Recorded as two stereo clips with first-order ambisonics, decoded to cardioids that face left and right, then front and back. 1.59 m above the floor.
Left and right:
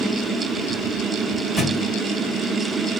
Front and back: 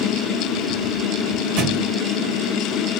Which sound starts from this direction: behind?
A thud, at 1.6 s.